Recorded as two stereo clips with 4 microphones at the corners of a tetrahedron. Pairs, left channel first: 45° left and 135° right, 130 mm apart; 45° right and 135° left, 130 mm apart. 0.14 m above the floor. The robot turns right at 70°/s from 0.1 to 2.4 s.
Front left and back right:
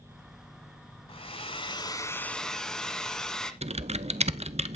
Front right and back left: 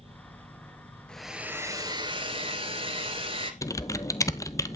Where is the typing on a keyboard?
105° right, 0.6 m.